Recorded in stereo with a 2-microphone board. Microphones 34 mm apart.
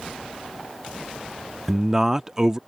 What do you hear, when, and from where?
1.7 s a man speaking: 20° right (ahead or behind)